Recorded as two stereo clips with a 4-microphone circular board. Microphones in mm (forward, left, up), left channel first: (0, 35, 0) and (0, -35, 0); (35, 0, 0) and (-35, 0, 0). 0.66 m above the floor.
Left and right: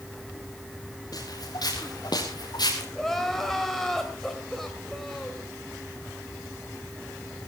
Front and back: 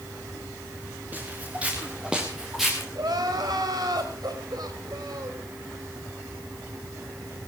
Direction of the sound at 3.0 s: 175° left.